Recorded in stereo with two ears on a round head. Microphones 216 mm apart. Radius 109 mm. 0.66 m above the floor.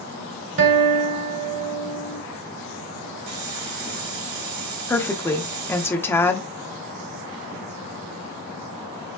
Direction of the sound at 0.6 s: 55° right (ahead or behind).